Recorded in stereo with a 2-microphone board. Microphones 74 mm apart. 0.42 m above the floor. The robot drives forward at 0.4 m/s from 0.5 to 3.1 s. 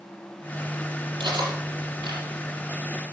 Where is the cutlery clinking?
80° right, 6.5 m; by 2.2 s 75° right (ahead or behind), 6.5 m.